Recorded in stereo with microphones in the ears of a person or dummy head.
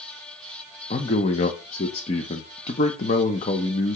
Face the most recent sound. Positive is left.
turn(degrees=40)  # may be behind; listen again after turning